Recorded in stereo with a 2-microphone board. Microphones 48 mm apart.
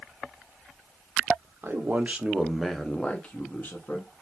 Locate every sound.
1.6 s a man speaking: 45° right (ahead or behind), 0.7 m; by 4.2 s 45° left (ahead or behind), 1.1 m